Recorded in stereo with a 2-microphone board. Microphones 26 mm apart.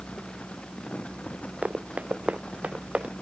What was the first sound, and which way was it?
Running footsteps, 70° right (ahead or behind).